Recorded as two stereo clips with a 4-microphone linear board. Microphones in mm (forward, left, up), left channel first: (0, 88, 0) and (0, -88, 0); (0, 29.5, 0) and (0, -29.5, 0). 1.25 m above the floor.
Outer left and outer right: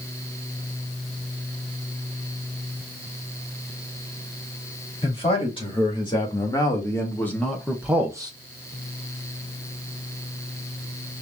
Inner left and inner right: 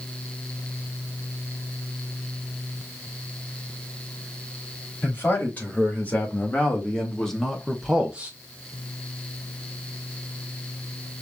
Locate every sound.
5.0 s a man speaking: 35° left (ahead or behind), 3.5 m; by 8.3 s 25° right (ahead or behind), 1.2 m